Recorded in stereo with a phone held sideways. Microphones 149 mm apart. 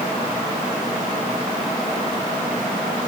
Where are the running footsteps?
No running footsteps in this recording.